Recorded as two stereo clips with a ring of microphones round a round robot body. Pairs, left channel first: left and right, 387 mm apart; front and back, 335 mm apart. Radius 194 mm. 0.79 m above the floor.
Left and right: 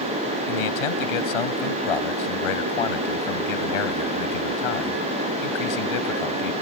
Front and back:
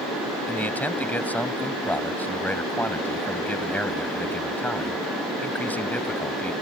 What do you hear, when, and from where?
0.5 s a man speaking: 85° left